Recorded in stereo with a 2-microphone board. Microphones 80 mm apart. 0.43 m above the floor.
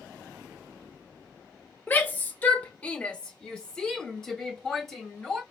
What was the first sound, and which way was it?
A shout, 25° left (ahead or behind).